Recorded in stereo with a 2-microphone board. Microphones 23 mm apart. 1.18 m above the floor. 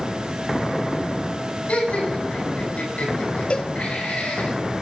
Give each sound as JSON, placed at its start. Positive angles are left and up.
{"t": 1.7, "sound": "laughter", "side_deg": 85, "distance_m": 9.0}
{"t": 3.5, "sound": "a cowbell", "side_deg": 60, "distance_m": 0.9}